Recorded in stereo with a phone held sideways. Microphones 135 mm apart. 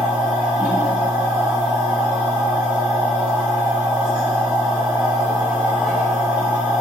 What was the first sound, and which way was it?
A machine running, 10° right (ahead or behind).